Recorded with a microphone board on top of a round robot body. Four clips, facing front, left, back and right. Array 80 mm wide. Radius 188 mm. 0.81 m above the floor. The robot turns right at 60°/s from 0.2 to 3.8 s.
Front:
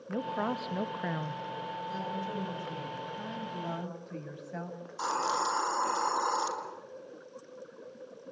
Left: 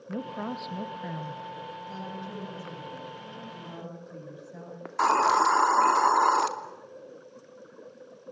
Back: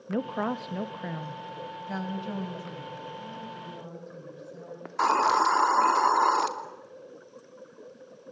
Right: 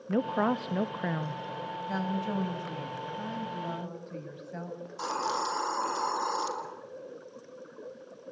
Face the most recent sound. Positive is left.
turn(degrees=125)